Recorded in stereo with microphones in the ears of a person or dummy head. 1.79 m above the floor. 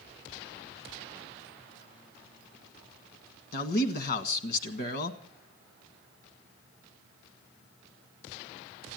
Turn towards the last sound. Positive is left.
turn(degrees=60)  # may be behind; listen again after turning